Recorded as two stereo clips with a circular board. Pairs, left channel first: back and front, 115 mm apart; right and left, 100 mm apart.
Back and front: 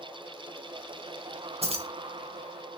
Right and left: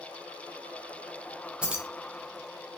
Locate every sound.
1.6 s keys jangling: 15° left, 0.6 m